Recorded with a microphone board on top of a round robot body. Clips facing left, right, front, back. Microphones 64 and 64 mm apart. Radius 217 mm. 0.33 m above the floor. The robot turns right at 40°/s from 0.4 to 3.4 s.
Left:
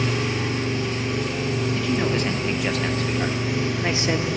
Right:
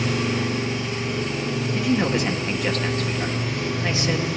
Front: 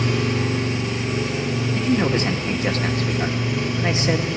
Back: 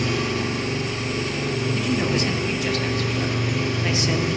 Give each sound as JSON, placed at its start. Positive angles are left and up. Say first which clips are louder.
{"t": 0.0, "sound": "an engine running", "louder": "right 1 dB, front 2 dB", "azimuth_deg": 35, "distance_m": 7.0}
{"t": 1.7, "sound": "a man speaking", "louder": "right 4 dB, front 5 dB", "azimuth_deg": -30, "distance_m": 1.3}